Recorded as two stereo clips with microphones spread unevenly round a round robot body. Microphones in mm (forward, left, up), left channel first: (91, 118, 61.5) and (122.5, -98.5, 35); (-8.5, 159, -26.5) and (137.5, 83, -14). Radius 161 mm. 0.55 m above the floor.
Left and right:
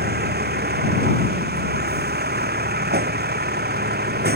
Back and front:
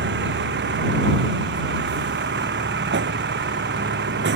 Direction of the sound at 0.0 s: 40° right.